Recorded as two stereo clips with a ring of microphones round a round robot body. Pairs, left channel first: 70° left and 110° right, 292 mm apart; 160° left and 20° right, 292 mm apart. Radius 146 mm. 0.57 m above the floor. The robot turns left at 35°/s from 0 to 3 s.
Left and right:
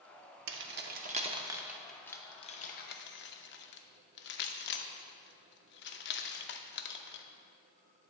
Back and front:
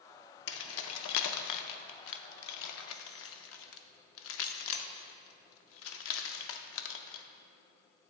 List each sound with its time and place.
0.5 s keys jangling: 155° right, 0.5 m; by 7.2 s 120° left, 0.5 m